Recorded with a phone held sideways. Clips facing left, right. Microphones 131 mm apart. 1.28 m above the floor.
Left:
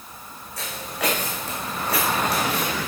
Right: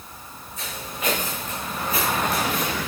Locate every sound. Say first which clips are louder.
0.6 s footsteps: left 4 dB; 75° left (ahead or behind), 5.5 m; by 2.9 s 70° left (ahead or behind), 4 m